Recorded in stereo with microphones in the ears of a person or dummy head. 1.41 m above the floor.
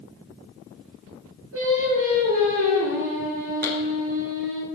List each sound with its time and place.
1.5 s singing: 80° right, 6 m
3.6 s a clap: 55° right (ahead or behind), 3 m